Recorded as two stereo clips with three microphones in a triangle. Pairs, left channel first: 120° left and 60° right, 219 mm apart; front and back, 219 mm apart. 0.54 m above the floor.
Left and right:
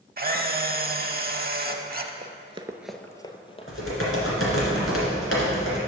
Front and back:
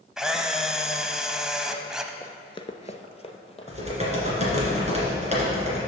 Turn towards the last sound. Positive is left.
turn(degrees=120)